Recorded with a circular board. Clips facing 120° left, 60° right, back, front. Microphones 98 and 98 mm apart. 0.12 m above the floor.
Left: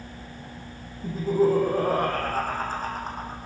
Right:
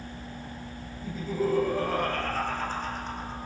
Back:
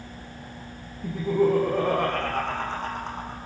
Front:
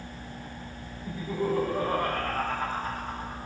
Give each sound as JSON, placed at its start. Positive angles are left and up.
{"t": 1.0, "sound": "laughter", "azimuth_deg": 165, "distance_m": 6.0}